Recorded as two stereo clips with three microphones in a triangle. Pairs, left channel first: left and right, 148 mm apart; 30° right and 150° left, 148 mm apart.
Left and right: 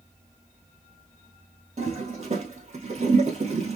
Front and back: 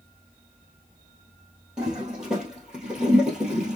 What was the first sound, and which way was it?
A toilet flushing, 125° right.